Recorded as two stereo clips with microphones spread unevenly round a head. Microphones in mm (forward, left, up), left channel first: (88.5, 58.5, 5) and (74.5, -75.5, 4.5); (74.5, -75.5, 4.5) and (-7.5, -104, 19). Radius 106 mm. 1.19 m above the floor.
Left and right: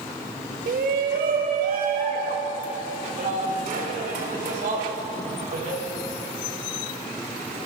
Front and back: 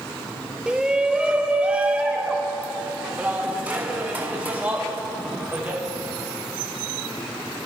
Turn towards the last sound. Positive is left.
turn(degrees=-90)